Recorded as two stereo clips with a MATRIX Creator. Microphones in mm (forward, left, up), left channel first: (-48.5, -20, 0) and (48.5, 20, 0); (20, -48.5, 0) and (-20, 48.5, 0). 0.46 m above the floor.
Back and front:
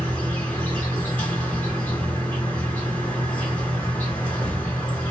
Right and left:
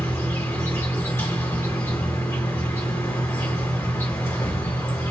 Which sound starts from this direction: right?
An insect, at 0.0 s.